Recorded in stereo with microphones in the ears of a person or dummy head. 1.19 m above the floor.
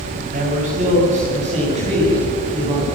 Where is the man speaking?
45° right (ahead or behind), 6.5 m; by 2.9 s 30° right (ahead or behind), 8.5 m.